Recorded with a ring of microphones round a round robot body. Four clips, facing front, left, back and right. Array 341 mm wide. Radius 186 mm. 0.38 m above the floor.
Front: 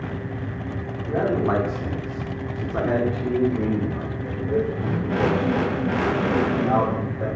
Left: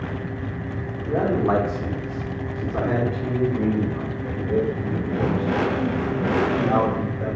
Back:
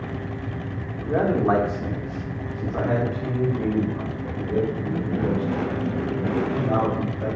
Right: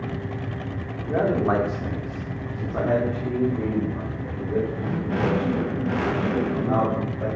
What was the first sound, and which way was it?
A man speaking, 150° right.